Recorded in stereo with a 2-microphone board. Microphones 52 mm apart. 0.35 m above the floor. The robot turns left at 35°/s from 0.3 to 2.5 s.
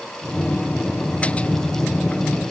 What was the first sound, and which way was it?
Only background noise.